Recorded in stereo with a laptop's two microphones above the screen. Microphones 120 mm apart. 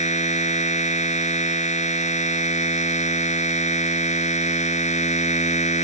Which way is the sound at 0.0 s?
75° left (ahead or behind).